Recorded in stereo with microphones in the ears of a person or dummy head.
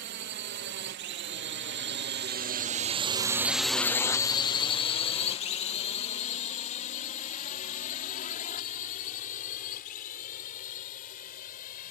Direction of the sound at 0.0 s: 55° right (ahead or behind).